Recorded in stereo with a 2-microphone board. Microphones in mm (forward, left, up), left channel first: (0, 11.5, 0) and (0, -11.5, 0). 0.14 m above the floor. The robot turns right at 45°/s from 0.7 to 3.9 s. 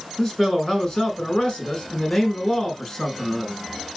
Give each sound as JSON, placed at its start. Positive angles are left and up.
{"t": 0.2, "sound": "a man speaking", "azimuth_deg": 45, "distance_m": 1.4}